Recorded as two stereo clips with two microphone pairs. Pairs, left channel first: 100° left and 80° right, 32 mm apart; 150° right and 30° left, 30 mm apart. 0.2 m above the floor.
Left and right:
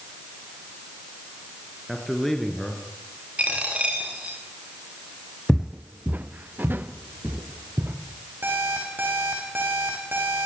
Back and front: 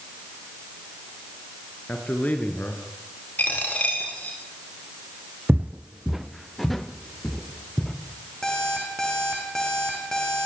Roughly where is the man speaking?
Behind.